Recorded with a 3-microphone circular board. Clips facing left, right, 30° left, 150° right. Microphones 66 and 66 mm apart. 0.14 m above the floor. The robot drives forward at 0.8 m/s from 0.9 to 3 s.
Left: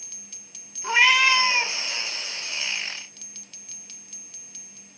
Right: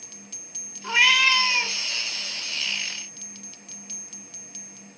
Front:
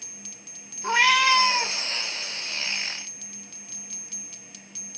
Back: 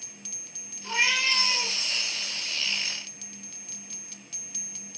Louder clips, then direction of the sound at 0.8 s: Left 2 dB, front 7 dB; 15° left.